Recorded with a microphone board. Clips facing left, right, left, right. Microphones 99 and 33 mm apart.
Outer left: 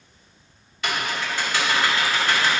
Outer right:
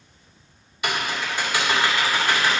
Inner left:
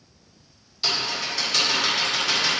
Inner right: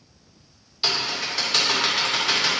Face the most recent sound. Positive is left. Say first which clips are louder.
# even, inner right 1 dB
turn(degrees=-15)  # may be behind; listen again after turning